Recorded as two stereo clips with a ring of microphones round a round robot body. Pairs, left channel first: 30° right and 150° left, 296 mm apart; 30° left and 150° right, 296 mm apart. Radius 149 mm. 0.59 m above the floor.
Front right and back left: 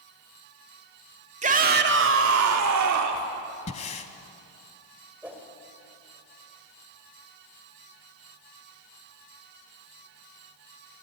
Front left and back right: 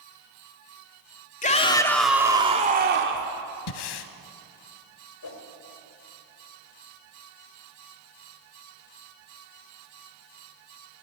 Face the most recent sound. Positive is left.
turn(degrees=65)